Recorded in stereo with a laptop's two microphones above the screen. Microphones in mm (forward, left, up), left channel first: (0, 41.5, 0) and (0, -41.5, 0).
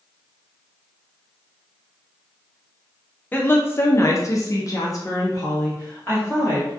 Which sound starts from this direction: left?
A woman speaking, at 3.3 s.